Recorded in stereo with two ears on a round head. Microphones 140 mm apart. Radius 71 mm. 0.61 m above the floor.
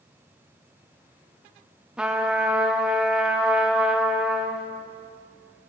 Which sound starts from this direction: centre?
A trumpet, at 2.0 s.